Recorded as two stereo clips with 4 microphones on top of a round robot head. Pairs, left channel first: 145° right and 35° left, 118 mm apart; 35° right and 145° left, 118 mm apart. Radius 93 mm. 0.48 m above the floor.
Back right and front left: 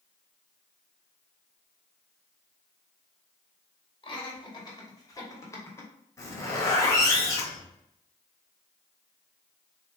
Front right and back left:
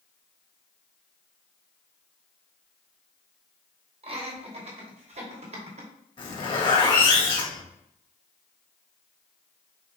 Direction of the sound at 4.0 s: 175° left.